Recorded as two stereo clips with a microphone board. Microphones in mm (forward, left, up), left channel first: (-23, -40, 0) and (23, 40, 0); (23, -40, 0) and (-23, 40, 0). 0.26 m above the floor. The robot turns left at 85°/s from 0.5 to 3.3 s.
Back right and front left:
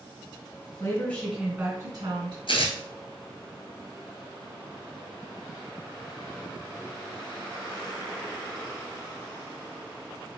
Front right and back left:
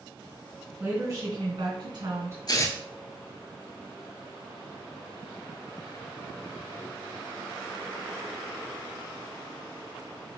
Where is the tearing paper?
100° right, 0.8 m; by 2.8 s 125° right, 0.8 m.